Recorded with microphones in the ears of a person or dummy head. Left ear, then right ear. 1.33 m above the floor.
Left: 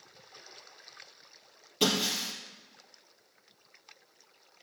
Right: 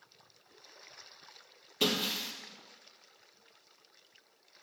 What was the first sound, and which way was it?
Breaking glass, 15° right (ahead or behind).